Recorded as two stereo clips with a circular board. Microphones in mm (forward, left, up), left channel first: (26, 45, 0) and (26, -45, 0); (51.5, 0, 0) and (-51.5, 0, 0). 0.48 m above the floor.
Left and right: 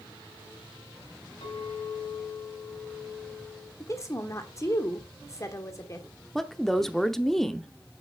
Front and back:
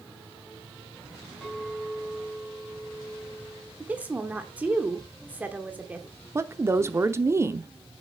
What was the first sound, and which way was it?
A clink, 85° left.